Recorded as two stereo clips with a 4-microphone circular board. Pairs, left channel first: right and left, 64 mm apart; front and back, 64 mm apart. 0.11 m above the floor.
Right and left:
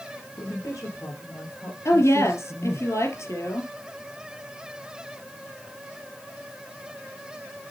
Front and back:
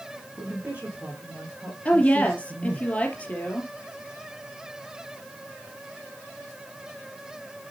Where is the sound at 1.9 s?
65° right, 3 m.